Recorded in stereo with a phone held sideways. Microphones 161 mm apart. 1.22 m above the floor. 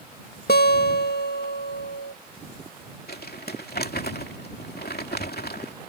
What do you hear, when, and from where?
0.5 s a guitar: 80° left
3.1 s crumpling: 80° left